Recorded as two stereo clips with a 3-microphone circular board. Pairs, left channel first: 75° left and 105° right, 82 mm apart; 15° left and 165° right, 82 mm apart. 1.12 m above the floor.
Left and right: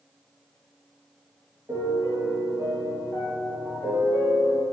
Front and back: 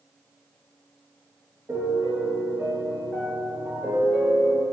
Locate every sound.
1.7 s a piano: 125° right, 1.3 m